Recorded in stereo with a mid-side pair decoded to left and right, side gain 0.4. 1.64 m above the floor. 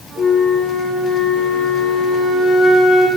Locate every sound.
0.2 s a flute: 55° left, 1.2 m